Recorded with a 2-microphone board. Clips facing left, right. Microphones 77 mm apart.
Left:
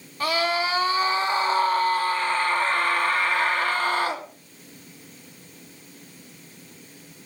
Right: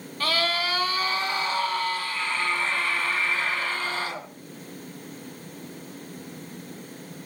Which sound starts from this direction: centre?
A scream, at 0.2 s.